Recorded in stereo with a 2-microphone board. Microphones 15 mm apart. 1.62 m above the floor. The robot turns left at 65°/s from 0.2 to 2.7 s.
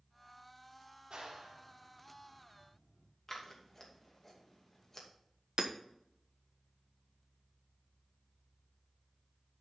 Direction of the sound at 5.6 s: 60° right (ahead or behind).